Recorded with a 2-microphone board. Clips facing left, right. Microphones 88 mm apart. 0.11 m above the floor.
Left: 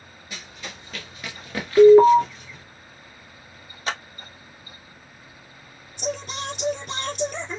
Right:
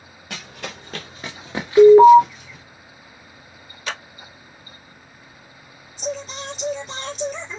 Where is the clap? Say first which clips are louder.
Left 2 dB; 35° left (ahead or behind), 2.0 m.